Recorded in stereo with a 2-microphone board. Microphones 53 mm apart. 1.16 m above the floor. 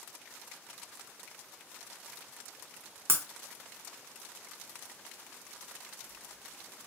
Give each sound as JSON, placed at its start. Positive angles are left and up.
{"t": 3.1, "sound": "breaking glass", "side_deg": -50, "distance_m": 0.6}